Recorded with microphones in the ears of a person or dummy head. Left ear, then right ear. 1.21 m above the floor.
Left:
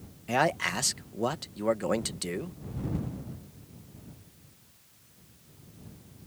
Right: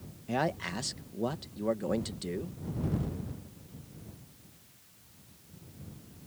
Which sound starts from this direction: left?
A man speaking, at 0.3 s.